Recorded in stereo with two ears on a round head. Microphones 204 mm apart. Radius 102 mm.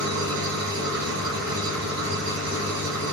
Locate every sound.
0.0 s an engine running: 50° right (ahead or behind), 4 m